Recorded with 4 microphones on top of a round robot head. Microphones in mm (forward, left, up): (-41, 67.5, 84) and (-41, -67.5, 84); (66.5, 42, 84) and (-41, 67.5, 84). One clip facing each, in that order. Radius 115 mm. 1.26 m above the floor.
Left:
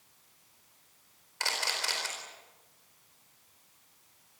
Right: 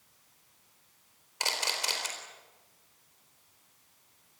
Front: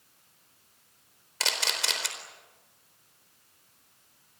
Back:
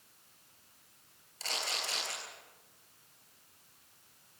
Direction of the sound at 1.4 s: 15° right.